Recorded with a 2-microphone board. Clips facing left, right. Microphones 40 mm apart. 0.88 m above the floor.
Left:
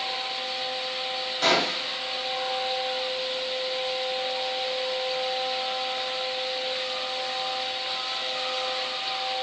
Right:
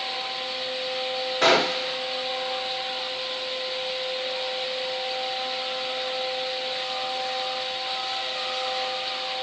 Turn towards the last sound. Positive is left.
turn(degrees=-90)